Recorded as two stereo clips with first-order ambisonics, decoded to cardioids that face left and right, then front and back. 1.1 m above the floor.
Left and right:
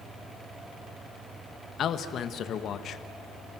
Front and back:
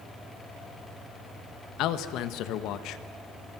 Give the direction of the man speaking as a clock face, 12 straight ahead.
11 o'clock.